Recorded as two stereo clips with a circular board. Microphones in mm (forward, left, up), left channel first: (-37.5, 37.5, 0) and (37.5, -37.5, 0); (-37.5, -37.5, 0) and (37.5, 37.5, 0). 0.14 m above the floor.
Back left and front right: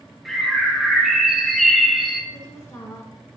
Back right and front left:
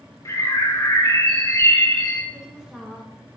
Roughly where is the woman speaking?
Behind left.